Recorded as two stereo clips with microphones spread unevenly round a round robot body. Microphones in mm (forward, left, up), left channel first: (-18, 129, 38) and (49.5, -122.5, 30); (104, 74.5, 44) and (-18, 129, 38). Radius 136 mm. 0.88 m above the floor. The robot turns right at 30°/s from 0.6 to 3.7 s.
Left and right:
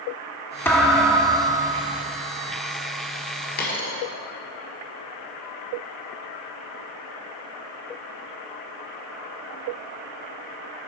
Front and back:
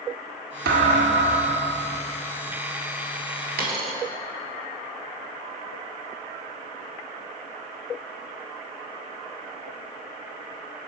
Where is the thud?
170° right, 0.6 m; by 2.0 s 130° right, 0.6 m.